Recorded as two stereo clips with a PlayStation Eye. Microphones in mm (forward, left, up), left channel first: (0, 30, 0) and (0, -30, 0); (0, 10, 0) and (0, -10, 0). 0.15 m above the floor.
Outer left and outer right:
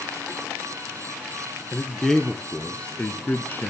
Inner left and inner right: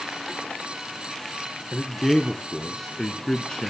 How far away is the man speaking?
About 1.5 m.